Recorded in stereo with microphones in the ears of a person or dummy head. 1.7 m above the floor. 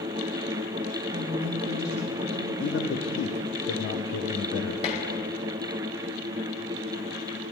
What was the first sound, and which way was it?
A woman speaking, 35° right (ahead or behind).